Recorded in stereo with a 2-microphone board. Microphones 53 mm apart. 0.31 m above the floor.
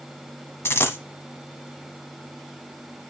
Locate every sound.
0.7 s a dropped coin: 55° left (ahead or behind), 1.0 m